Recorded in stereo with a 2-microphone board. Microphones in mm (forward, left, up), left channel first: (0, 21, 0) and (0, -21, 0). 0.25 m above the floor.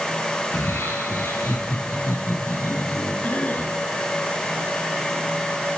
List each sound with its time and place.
0.4 s laughter: 75° left (ahead or behind), 4.5 m; by 3.1 s 70° left (ahead or behind), 6 m
3.2 s a cough: 35° left (ahead or behind), 2.5 m